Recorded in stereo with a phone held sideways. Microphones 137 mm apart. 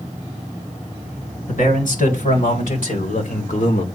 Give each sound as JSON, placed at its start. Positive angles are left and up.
{"t": 1.5, "sound": "a man speaking", "side_deg": 85, "distance_m": 4.0}